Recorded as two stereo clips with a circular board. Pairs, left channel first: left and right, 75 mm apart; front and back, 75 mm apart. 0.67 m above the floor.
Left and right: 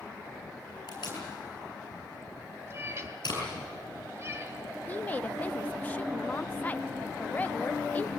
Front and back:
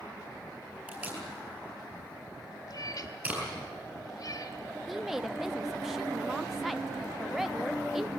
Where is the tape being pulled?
110° left, 8.5 m.